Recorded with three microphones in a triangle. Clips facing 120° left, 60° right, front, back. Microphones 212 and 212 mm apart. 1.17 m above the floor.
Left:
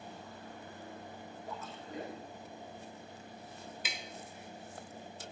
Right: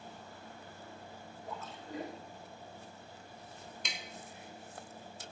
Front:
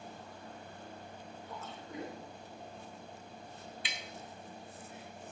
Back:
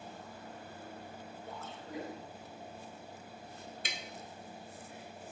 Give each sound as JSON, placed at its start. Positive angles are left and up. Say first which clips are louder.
{"t": 1.5, "sound": "a splash", "louder": "right 2 dB, even", "azimuth_deg": -150, "distance_m": 5.0}
{"t": 3.9, "sound": "tapping", "louder": "right 1 dB, back 4 dB", "azimuth_deg": -155, "distance_m": 1.1}